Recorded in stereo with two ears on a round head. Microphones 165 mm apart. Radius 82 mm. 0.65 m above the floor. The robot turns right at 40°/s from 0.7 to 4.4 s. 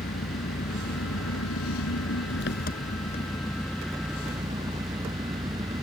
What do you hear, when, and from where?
0.0 s an engine running: 50° left; by 5.8 s 160° right